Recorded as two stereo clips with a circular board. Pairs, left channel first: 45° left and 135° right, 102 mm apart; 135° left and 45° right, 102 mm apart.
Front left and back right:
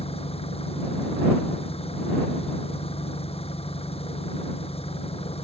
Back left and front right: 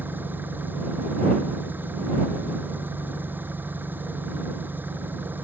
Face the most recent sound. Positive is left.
turn(degrees=25)